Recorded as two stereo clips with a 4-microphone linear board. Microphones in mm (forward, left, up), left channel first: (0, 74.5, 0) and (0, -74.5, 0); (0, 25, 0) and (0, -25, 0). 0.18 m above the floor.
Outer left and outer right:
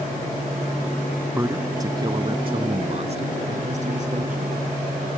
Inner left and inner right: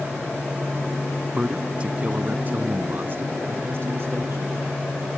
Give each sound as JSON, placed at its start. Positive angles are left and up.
{"t": 1.3, "sound": "a man speaking", "side_deg": -15}